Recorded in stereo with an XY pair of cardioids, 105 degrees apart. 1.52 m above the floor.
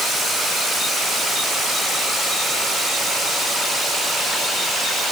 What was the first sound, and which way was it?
Only background noise.